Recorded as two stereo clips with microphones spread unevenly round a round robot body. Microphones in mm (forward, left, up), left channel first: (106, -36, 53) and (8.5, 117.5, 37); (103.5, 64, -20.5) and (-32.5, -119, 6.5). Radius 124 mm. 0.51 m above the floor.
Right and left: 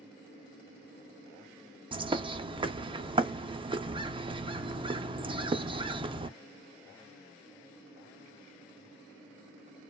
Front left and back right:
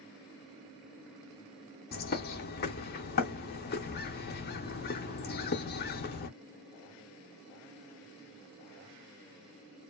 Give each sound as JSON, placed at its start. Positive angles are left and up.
{"t": 1.9, "sound": "a bird", "azimuth_deg": 70, "distance_m": 0.5}